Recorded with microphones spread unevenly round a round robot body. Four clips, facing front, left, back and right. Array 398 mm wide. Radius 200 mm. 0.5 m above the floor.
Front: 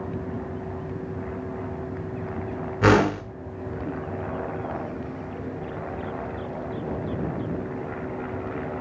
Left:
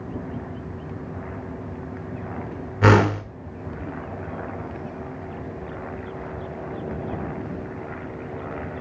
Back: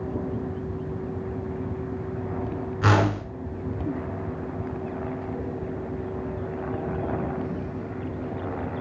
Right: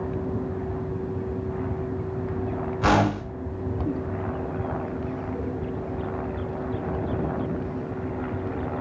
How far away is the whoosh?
About 1.7 m.